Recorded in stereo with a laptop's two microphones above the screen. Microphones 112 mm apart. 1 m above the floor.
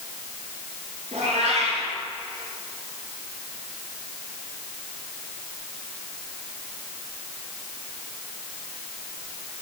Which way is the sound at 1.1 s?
85° right.